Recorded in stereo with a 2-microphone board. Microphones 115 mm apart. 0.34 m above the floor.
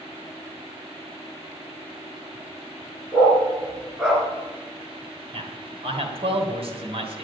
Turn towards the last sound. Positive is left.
turn(degrees=-60)  # may be behind; listen again after turning